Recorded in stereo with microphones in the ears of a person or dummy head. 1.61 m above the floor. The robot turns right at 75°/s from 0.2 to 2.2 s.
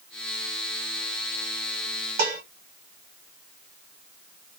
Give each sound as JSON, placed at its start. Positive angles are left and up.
{"t": 2.2, "sound": "dishes clattering", "side_deg": -50, "distance_m": 1.2}